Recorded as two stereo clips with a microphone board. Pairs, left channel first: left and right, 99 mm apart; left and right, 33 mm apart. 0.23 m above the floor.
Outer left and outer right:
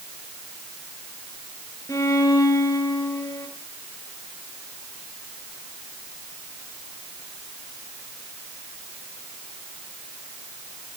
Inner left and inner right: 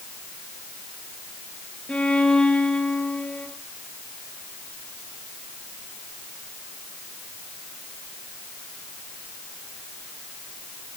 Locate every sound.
1.9 s a violin: 35° left (ahead or behind), 4 m